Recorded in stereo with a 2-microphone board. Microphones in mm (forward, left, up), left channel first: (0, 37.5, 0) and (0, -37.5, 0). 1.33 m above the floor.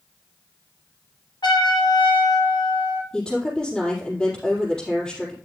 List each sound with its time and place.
1.4 s a trumpet: 80° left, 3 m
3.1 s a woman speaking: 10° left (ahead or behind), 4 m